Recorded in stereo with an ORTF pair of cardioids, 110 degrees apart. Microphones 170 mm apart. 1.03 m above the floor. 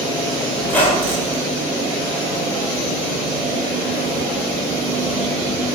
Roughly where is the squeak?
Ahead.